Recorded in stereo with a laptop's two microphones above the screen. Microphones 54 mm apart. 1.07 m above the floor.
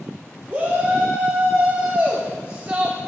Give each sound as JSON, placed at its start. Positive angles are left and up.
{"t": 0.5, "sound": "a shout", "side_deg": -30, "distance_m": 3.5}